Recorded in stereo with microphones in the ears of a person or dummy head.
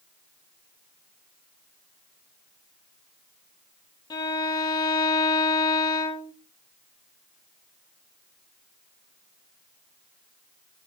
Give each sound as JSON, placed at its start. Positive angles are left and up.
{"t": 4.1, "sound": "a violin", "side_deg": 20, "distance_m": 1.5}